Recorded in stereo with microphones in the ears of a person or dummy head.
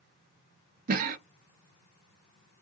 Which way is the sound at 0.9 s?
50° right (ahead or behind).